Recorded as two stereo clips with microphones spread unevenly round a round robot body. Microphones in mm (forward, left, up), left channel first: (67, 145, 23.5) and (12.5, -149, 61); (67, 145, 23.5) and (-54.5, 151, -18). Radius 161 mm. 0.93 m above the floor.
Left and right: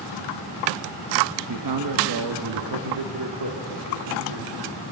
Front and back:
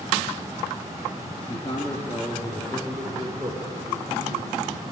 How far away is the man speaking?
About 1.3 m.